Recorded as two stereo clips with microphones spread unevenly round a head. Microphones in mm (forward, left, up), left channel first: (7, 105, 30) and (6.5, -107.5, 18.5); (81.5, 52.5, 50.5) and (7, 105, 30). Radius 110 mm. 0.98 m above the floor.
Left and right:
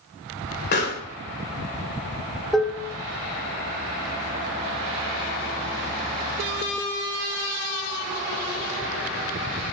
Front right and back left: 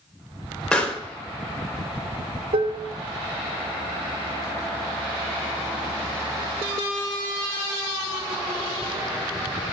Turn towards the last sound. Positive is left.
turn(degrees=180)